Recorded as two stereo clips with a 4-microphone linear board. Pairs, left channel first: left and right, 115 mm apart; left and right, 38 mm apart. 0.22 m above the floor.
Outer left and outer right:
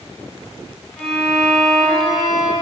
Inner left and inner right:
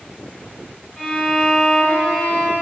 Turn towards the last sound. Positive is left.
turn(degrees=5)  # may be behind; listen again after turning